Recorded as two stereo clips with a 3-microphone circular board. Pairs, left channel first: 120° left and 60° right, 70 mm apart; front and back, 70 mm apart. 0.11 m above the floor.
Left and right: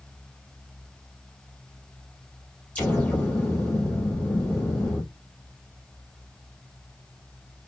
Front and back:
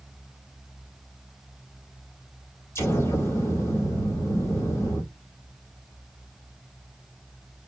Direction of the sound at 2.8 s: 50° left.